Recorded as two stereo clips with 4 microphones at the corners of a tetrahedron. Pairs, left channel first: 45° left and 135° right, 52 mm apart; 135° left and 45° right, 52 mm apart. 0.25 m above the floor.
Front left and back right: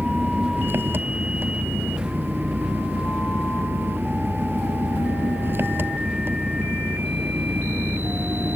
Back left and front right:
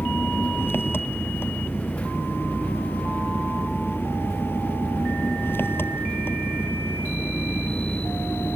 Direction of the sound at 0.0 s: Straight behind.